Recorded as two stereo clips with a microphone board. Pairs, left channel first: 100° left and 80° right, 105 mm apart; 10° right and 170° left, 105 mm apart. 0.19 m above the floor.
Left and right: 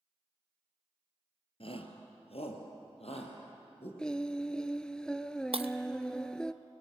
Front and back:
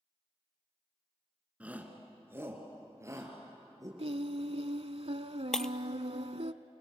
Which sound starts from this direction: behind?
Singing, at 4.0 s.